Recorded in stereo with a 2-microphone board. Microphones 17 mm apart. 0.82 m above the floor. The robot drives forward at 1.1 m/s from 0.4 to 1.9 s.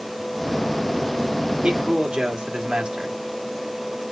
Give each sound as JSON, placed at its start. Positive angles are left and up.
{"t": 1.6, "sound": "a man speaking", "side_deg": -70, "distance_m": 2.5}